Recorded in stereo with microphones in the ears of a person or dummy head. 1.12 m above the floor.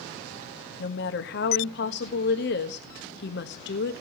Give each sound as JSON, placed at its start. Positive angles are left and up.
{"t": 0.8, "sound": "a woman speaking", "side_deg": 65, "distance_m": 1.3}